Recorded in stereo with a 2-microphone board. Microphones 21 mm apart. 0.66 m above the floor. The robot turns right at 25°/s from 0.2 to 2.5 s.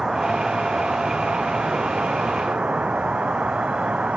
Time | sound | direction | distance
0.0 | an insect | 150° right | ?